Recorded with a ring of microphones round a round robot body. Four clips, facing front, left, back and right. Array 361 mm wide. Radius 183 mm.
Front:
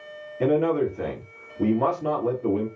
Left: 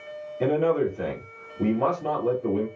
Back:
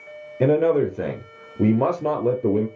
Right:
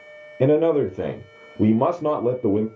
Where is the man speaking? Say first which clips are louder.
Right 5 dB, back 3 dB; 125° right, 1.3 m.